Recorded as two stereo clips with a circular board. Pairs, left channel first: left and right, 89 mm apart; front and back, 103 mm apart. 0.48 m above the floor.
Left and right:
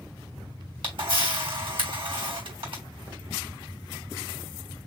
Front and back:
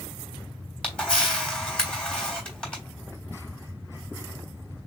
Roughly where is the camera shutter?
Right.